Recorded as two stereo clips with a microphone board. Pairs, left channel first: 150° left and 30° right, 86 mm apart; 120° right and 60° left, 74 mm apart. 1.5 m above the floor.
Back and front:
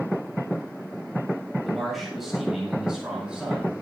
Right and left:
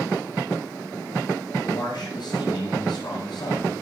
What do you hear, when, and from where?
1.6 s a man speaking: 120° right, 7 m; by 3.7 s 105° right, 8 m